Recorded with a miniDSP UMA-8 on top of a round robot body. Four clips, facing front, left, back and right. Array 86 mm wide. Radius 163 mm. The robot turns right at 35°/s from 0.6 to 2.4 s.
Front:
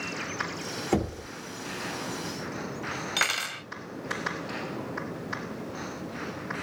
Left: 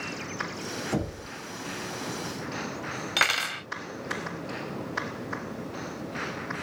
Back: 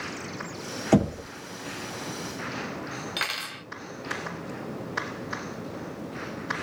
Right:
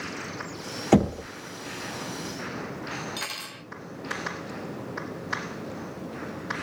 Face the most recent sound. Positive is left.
turn(degrees=75)